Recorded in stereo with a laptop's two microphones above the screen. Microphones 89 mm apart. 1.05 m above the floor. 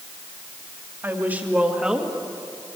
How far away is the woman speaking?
About 2.5 m.